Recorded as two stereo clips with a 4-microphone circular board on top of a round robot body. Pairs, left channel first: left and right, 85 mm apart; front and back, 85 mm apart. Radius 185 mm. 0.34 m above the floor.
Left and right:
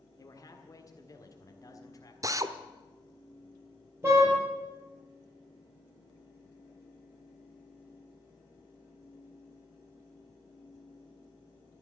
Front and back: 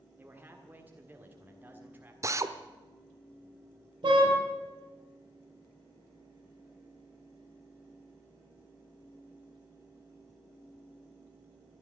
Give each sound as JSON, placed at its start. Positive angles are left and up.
{"t": 0.2, "sound": "a man speaking", "azimuth_deg": 120, "distance_m": 1.9}
{"t": 2.2, "sound": "a drill", "azimuth_deg": -135, "distance_m": 1.1}
{"t": 4.0, "sound": "a car horn", "azimuth_deg": -150, "distance_m": 6.0}